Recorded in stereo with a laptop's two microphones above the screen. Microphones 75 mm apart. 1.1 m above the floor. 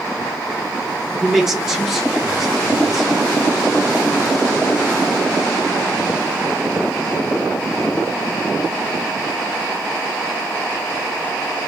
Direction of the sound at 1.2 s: 5° right (ahead or behind).